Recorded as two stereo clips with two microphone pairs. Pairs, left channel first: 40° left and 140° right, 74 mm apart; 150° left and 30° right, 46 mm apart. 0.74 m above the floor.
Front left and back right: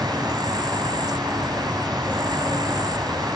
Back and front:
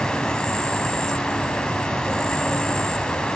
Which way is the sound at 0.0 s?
135° right.